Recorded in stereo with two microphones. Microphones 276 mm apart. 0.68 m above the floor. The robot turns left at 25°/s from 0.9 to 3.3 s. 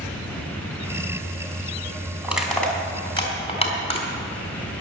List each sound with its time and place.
2.2 s crushing: 5° right (ahead or behind), 3 m; by 4.1 s 20° left (ahead or behind), 3 m